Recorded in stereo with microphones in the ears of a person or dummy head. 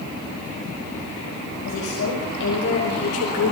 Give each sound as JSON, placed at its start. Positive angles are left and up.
{"t": 1.6, "sound": "a woman speaking", "side_deg": 60, "distance_m": 6.5}